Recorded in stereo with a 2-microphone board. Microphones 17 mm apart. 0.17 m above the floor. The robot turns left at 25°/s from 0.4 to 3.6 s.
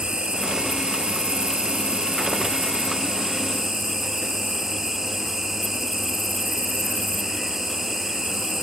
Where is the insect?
80° right; by 8.6 s 160° right.